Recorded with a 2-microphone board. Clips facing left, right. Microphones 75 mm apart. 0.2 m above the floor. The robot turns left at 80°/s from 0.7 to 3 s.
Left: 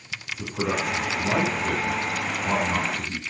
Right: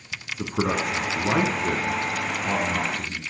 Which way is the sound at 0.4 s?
50° right (ahead or behind).